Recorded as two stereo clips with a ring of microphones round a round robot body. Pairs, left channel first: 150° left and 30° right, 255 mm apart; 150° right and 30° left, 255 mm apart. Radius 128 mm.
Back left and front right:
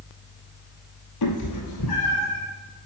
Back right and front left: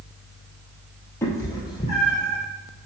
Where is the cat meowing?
130° left, 1.6 m; by 2.4 s 140° left, 2.5 m.